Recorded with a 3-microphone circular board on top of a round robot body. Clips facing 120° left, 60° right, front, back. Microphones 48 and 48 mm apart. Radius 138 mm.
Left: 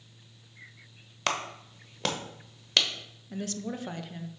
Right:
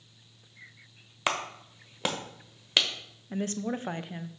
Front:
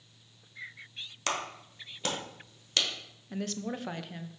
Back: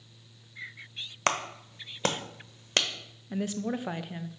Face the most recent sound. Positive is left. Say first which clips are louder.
# right 4 dB, back 4 dB
turn(degrees=-105)